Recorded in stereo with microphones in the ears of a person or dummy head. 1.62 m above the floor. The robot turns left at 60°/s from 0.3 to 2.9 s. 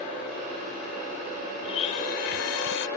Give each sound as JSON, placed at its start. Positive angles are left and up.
{"t": 1.6, "sound": "a blender", "azimuth_deg": 150}